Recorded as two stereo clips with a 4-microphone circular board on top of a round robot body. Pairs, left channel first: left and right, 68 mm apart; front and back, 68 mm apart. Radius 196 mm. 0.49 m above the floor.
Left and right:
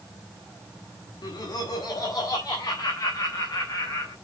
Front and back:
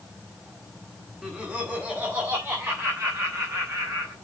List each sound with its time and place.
1.2 s laughter: 100° left, 2 m; by 4.1 s 135° left, 4 m